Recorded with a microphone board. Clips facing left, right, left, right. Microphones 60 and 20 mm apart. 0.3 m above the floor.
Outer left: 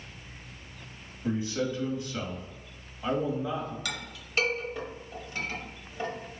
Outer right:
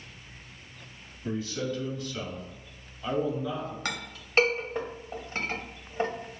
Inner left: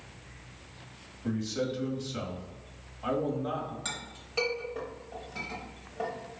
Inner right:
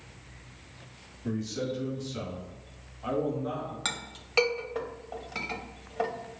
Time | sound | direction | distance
1.2 | a man speaking | 20° left (ahead or behind) | 1.6 m
3.9 | a clink | 40° right (ahead or behind) | 0.8 m